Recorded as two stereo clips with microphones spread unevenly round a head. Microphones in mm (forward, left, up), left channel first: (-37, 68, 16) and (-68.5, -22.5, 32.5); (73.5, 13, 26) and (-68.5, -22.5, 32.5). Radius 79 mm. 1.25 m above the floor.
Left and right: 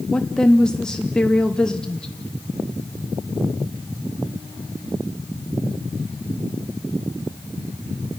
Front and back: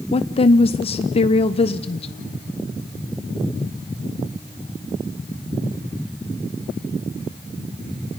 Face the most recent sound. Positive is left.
turn(degrees=5)